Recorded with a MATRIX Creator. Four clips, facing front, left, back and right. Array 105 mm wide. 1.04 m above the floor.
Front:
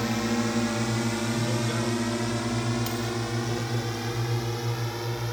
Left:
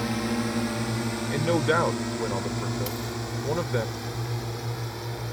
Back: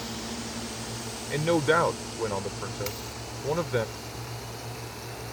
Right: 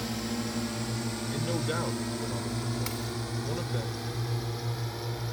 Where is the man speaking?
140° left.